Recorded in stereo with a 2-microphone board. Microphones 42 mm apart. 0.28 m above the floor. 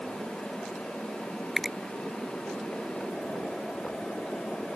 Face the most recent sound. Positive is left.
turn(degrees=0)  # may be behind; listen again after turning